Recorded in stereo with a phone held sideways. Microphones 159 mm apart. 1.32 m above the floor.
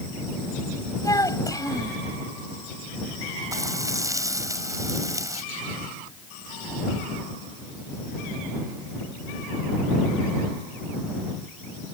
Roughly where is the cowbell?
No cowbell in this recording.